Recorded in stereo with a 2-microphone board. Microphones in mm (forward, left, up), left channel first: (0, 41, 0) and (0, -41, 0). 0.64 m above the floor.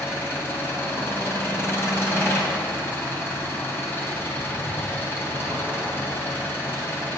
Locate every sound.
0.0 s an engine running: 30° left (ahead or behind), 3 m